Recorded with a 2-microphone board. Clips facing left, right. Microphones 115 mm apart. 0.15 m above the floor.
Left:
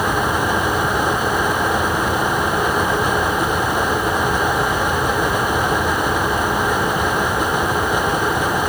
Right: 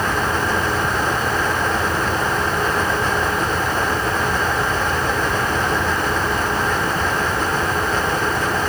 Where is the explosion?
I don't hear an explosion.